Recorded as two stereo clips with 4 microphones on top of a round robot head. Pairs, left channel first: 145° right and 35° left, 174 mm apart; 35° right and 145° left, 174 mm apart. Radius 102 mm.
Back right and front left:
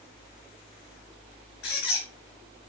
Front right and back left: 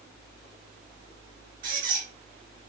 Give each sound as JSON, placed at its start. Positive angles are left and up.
{"t": 1.6, "sound": "a squeak", "azimuth_deg": -175, "distance_m": 3.5}